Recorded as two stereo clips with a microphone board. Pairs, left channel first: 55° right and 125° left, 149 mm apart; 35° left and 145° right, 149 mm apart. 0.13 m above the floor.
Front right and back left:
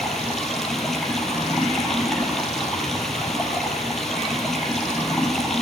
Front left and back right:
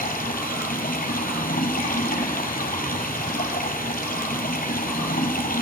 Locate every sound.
0.0 s running water: 30° left, 3.5 m